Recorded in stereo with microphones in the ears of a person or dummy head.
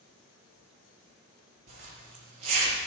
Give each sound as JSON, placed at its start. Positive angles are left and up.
{"t": 1.7, "sound": "a zipper", "side_deg": -40, "distance_m": 4.0}